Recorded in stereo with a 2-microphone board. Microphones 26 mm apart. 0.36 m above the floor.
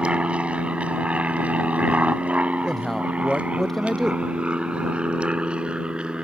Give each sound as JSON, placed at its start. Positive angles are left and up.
{"t": 0.0, "sound": "an aircraft", "side_deg": -45}
{"t": 2.6, "sound": "a man speaking", "side_deg": 15}